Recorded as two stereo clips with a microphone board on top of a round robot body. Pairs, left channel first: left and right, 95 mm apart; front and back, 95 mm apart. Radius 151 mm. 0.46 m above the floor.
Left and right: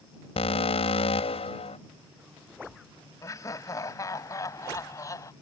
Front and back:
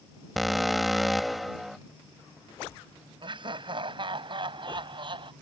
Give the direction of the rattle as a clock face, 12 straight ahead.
I don't hear a rattle.